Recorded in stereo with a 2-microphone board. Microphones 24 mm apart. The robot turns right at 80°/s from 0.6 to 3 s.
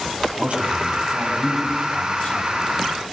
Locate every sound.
0.4 s a man speaking: 70° right, 4.5 m; by 2.5 s 85° left, 4.5 m